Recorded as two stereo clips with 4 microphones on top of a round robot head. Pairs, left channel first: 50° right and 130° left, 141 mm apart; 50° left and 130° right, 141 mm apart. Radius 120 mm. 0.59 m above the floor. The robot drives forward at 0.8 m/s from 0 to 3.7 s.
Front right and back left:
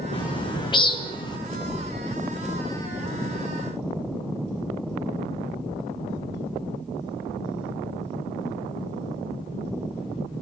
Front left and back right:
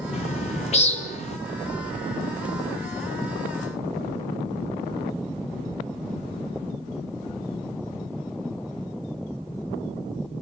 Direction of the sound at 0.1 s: 5° left.